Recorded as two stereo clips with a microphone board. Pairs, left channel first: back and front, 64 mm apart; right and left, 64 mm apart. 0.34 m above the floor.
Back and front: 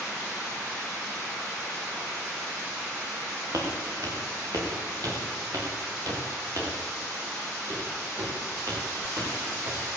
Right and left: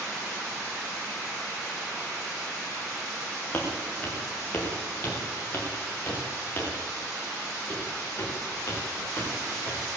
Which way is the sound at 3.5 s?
25° right.